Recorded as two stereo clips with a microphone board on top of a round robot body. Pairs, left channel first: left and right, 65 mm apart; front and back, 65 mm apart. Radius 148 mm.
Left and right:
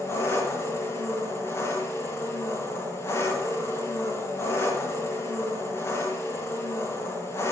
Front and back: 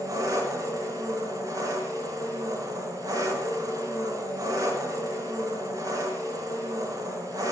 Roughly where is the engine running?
Behind left.